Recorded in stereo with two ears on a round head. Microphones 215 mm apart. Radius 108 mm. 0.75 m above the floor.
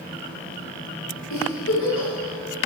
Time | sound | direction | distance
1.3 | a giggle | 65° left (ahead or behind) | 2.5 m